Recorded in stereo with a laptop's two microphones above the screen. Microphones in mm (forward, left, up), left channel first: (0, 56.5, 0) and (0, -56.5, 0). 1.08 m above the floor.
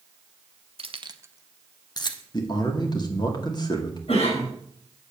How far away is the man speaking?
About 2.5 m.